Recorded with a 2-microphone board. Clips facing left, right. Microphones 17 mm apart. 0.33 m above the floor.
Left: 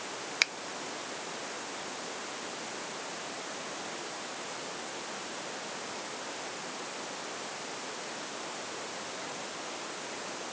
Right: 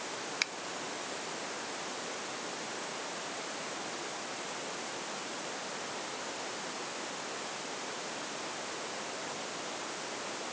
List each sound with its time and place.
0.4 s a finger snap: 25° left (ahead or behind)